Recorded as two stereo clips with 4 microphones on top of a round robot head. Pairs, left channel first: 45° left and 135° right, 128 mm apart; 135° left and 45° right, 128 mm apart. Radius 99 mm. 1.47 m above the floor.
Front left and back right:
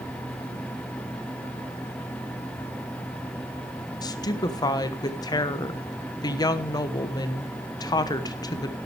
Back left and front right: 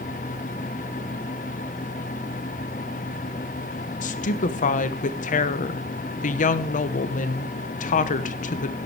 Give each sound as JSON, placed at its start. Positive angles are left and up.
{"t": 4.0, "sound": "a woman speaking", "azimuth_deg": 105, "distance_m": 1.3}